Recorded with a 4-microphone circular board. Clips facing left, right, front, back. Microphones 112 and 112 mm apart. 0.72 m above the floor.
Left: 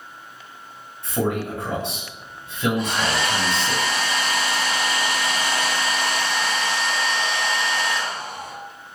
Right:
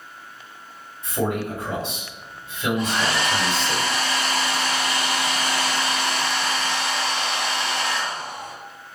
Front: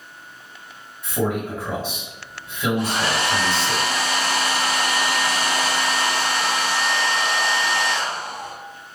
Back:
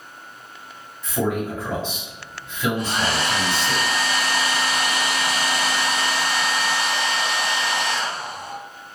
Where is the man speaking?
85° left, 1.6 m.